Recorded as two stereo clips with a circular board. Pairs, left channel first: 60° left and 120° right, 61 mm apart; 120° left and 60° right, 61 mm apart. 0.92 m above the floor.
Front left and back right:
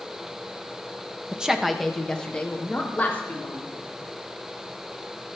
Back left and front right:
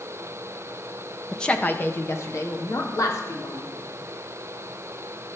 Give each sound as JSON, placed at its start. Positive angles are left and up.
{"t": 1.3, "sound": "a woman speaking", "azimuth_deg": -170, "distance_m": 0.9}